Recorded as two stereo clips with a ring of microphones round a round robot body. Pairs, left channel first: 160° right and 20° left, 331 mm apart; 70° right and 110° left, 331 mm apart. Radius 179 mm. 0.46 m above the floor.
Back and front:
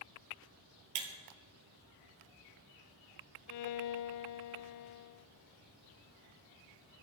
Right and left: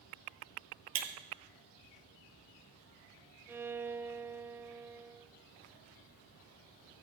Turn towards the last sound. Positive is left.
turn(degrees=-165)